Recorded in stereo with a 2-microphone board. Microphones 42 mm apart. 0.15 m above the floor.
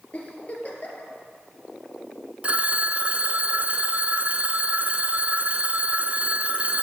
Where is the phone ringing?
35° right (ahead or behind), 0.7 m.